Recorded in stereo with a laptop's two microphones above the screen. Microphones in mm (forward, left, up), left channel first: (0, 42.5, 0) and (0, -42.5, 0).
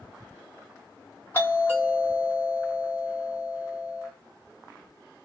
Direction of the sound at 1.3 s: 25° left (ahead or behind).